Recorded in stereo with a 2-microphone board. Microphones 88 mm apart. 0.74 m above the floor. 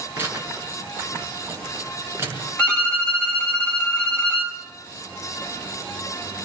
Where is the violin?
10° left (ahead or behind), 5.5 m.